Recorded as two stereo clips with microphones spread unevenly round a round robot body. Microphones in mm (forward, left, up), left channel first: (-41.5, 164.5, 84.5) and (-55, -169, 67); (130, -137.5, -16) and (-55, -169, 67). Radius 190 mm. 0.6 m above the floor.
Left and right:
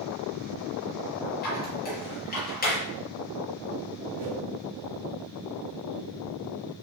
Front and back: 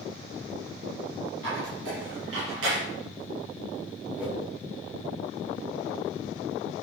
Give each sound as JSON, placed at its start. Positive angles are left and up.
{"t": 1.4, "sound": "a squeak", "azimuth_deg": 150, "distance_m": 6.0}
{"t": 4.2, "sound": "a whoosh", "azimuth_deg": -85, "distance_m": 3.0}